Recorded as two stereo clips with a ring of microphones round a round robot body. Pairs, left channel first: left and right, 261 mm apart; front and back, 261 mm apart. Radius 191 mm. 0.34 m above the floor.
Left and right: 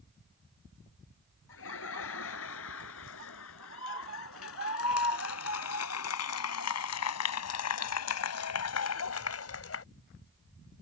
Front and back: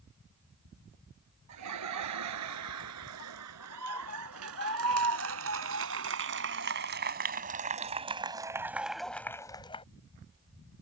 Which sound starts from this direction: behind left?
Laughter, at 1.5 s.